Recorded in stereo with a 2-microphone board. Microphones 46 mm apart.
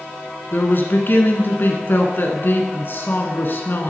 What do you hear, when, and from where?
0.5 s a man speaking: 50° left (ahead or behind), 1.6 m